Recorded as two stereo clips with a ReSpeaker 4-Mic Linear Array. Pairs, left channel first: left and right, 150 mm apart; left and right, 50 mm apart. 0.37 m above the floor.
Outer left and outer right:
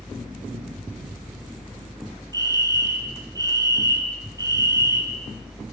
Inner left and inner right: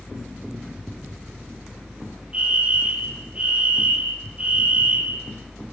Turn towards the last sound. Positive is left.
turn(degrees=-25)  # may be behind; listen again after turning